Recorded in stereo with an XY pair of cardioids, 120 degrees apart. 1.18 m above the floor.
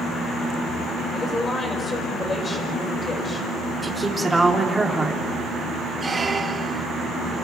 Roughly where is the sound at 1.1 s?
Ahead left.